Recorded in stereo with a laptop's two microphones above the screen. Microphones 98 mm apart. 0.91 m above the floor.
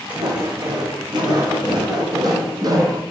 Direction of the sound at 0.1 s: 45° right (ahead or behind).